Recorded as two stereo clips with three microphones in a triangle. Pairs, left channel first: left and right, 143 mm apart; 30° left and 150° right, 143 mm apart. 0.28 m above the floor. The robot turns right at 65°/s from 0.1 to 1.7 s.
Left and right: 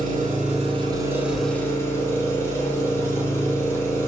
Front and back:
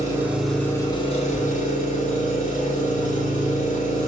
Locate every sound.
0.0 s an engine running: 85° right, 1.0 m; by 4.1 s 20° left, 1.0 m